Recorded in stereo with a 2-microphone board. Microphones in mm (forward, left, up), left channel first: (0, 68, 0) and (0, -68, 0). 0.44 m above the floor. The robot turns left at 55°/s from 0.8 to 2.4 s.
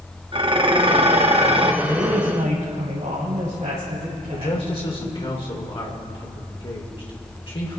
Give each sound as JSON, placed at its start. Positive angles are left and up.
{"t": 0.3, "sound": "dishes clattering", "azimuth_deg": -60, "distance_m": 0.7}
{"t": 1.8, "sound": "a woman speaking", "azimuth_deg": -30, "distance_m": 2.5}
{"t": 4.3, "sound": "a man speaking", "side_deg": 40, "distance_m": 1.7}